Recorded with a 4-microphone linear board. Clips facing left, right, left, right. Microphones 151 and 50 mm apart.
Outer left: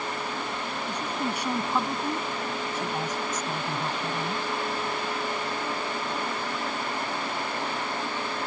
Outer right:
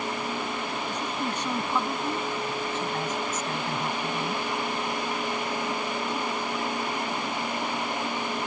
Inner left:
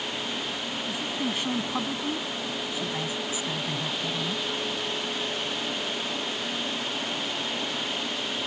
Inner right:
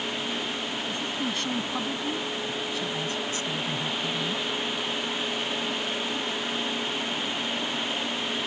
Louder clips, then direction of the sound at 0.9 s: Outer left 3 dB, inner left 2 dB; 10° left (ahead or behind).